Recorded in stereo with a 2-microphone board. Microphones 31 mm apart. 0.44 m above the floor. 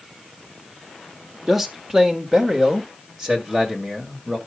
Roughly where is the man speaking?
Centre.